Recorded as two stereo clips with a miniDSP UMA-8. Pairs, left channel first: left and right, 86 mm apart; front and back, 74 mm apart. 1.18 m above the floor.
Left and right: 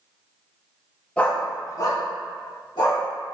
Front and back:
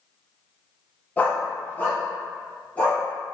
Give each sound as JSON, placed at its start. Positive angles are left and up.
{"t": 1.2, "sound": "a dog barking", "azimuth_deg": 35, "distance_m": 0.5}